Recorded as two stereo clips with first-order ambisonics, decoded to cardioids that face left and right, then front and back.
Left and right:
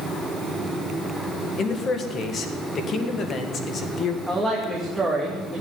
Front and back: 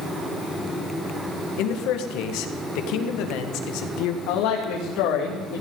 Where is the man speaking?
25° left, 1.8 m.